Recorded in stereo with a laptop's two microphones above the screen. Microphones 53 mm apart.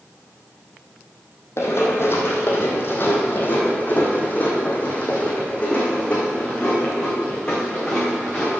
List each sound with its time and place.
1.6 s running footsteps: 55° left (ahead or behind), 2 m; by 8.5 s 15° left (ahead or behind), 4.5 m